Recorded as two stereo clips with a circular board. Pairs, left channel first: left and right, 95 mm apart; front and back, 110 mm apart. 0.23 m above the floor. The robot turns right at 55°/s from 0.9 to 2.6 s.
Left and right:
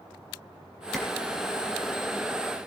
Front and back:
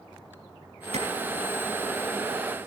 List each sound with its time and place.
0.9 s a clap: straight behind, 4.5 m; by 1.1 s 175° right, 4.5 m